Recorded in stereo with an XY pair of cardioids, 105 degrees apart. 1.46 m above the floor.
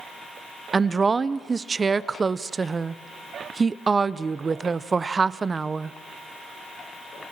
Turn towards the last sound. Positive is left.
turn(degrees=-30)